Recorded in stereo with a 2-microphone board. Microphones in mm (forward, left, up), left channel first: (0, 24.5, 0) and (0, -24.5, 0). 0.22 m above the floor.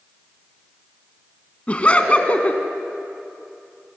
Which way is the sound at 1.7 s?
25° left (ahead or behind).